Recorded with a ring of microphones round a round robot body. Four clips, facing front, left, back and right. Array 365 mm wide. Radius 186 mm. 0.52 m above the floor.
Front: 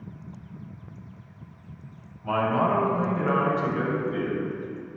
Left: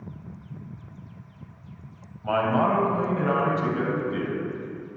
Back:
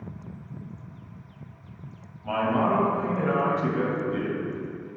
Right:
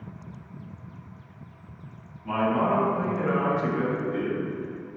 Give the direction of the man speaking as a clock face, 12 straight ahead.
9 o'clock.